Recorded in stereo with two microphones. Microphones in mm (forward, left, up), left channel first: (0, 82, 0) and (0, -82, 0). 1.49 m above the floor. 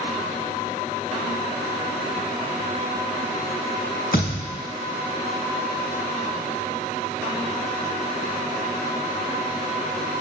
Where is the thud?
60° left (ahead or behind), 3.5 m.